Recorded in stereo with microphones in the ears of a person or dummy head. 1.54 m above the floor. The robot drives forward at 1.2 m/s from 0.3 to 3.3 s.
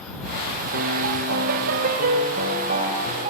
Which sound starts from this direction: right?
A piano, at 0.7 s.